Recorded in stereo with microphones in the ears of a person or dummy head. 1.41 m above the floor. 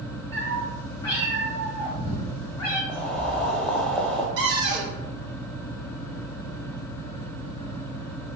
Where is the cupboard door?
50° right (ahead or behind), 0.8 m.